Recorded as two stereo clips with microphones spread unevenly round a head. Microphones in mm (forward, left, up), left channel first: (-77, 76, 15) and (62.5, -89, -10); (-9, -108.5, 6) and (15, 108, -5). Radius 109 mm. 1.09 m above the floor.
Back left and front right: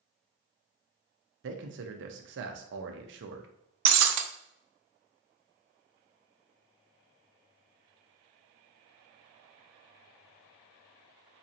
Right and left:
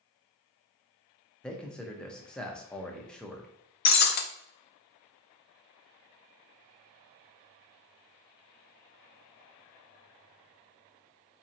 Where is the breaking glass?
55° right, 0.5 m.